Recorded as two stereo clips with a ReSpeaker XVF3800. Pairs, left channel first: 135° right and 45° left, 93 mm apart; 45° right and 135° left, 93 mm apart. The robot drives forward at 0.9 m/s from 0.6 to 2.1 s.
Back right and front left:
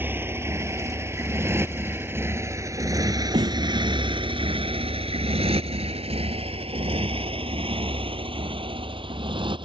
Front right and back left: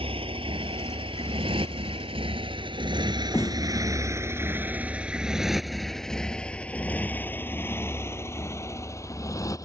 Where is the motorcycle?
115° left; by 9.7 s 10° left.